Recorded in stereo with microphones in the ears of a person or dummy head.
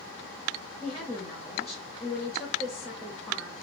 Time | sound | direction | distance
0.8 | a woman speaking | centre (ahead or behind) | 0.7 m